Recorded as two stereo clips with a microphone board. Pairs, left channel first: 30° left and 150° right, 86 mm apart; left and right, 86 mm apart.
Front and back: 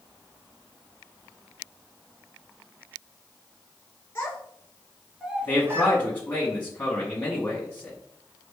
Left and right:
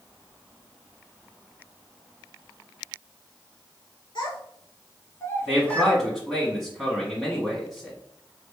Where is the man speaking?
5° right, 1.2 m.